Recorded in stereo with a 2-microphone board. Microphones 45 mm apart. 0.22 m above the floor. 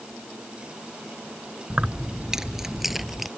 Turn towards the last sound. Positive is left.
turn(degrees=-5)  # may be behind; listen again after turning